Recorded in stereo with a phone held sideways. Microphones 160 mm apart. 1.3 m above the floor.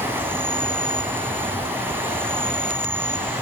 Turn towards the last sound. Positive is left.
turn(degrees=-15)  # may be behind; listen again after turning